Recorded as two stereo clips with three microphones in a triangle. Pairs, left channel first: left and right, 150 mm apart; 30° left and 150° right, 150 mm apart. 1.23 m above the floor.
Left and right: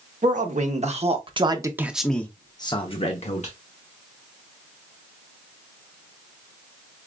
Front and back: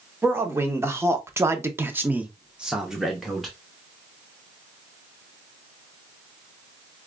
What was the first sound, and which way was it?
A man speaking, 75° right.